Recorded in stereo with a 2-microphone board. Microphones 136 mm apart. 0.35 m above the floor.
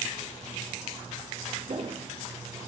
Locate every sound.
1.7 s footsteps: 60° right (ahead or behind), 3.5 m; by 2.7 s 50° right (ahead or behind), 3.5 m